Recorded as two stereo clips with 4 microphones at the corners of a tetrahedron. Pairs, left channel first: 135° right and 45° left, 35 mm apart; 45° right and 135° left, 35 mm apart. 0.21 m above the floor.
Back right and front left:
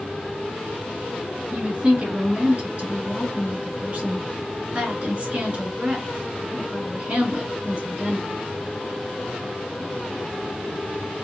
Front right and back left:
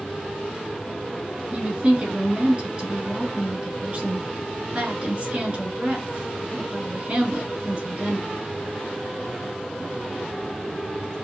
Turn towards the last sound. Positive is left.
turn(degrees=95)